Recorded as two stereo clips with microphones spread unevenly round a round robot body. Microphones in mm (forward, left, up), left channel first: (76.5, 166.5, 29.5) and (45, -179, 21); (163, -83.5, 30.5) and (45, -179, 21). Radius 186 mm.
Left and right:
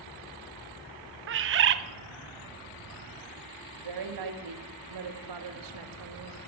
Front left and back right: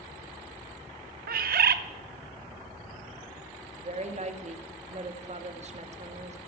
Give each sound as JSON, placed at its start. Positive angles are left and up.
{"t": 1.3, "sound": "a bird", "azimuth_deg": -155, "distance_m": 0.6}
{"t": 3.8, "sound": "a woman speaking", "azimuth_deg": -110, "distance_m": 2.0}